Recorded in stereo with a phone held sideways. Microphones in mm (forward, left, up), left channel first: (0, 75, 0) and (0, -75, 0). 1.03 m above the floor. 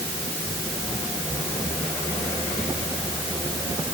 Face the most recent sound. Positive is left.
No sound to turn to.